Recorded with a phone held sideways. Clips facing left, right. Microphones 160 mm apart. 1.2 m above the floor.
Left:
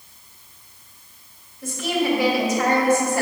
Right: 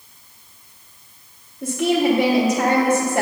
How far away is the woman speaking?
About 0.8 m.